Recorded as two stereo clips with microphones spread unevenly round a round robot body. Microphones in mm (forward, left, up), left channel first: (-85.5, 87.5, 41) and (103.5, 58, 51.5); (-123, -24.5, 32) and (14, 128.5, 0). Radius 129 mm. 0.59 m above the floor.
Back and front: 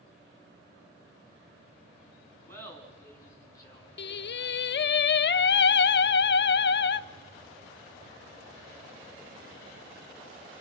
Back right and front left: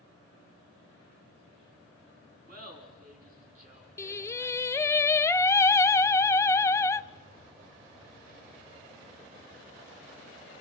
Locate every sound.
2.5 s laughter: 95° left, 7.5 m; by 5.0 s 105° left, 8.5 m
4.0 s singing: 145° left, 0.5 m